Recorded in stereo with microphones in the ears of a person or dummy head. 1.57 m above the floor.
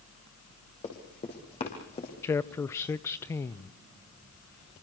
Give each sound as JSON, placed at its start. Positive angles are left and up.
{"t": 0.8, "sound": "running footsteps", "side_deg": 30, "distance_m": 6.0}
{"t": 2.2, "sound": "a man speaking", "side_deg": 15, "distance_m": 0.6}